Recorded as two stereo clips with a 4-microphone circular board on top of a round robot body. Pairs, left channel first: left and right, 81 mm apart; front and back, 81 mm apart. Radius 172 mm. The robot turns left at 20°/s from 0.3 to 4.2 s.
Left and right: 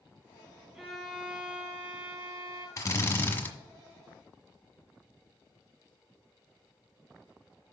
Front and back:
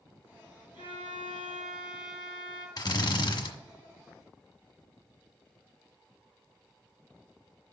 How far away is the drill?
About 1.5 m.